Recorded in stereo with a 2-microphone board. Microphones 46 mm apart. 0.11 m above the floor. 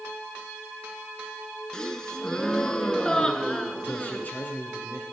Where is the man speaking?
40° left (ahead or behind), 2 m.